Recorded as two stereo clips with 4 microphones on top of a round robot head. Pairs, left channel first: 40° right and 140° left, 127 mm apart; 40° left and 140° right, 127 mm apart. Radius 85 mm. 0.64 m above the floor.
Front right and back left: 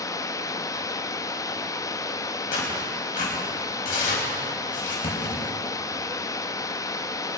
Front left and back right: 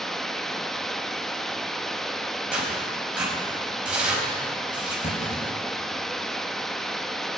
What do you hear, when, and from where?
0.0 s running water: 40° right, 0.8 m
2.5 s tearing paper: 55° right, 5 m
5.0 s a clunk: 10° left, 4 m